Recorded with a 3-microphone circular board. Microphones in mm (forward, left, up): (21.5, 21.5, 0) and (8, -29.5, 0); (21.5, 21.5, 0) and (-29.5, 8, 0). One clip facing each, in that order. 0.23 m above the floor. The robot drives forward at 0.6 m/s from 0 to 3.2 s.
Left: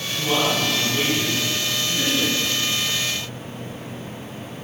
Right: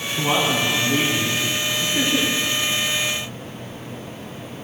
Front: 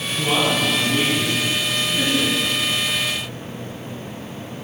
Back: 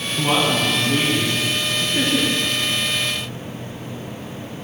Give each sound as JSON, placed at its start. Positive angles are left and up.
{"t": 0.2, "sound": "a man speaking", "azimuth_deg": -125, "distance_m": 1.8}